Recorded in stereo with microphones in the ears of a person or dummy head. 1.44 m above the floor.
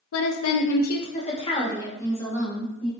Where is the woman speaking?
80° left, 0.6 m; by 2.9 s 5° left (ahead or behind), 1.6 m.